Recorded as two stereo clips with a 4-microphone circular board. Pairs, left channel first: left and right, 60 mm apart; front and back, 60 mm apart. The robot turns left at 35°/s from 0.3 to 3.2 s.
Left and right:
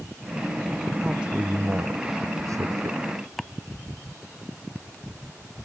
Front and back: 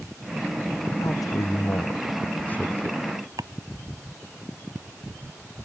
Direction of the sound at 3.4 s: Straight behind.